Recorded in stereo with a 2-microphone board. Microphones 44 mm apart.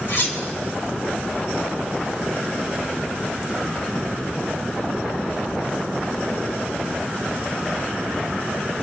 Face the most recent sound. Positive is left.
turn(degrees=60)  # may be behind; listen again after turning